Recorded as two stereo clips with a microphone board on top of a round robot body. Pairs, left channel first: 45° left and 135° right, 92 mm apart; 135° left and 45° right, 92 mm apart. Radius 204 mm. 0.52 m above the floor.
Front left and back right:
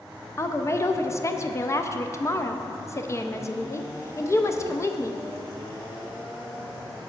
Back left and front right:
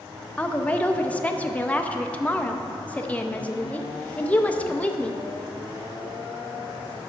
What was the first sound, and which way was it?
A woman speaking, 70° left.